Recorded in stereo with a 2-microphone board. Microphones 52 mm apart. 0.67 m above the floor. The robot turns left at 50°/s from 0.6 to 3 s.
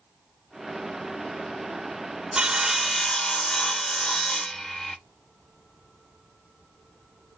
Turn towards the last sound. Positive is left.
turn(degrees=165)